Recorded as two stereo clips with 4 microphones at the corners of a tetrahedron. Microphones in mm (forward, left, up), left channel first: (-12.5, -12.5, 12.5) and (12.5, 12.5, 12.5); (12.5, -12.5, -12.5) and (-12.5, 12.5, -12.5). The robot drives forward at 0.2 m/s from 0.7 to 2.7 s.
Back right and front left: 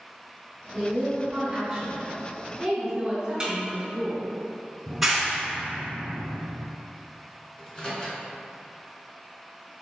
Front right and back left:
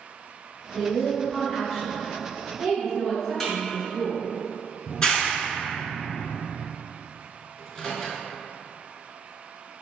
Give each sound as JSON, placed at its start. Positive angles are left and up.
{"t": 0.7, "sound": "a woman speaking", "azimuth_deg": 45, "distance_m": 1.4}
{"t": 3.4, "sound": "a snare drum", "azimuth_deg": 40, "distance_m": 1.3}
{"t": 4.9, "sound": "a clap", "azimuth_deg": -35, "distance_m": 0.9}
{"t": 7.6, "sound": "a microwave", "azimuth_deg": -110, "distance_m": 1.1}